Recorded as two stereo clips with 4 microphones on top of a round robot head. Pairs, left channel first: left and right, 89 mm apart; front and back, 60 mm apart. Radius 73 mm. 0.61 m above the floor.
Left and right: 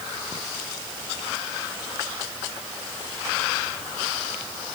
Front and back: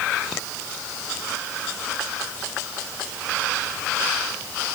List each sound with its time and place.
Only background noise.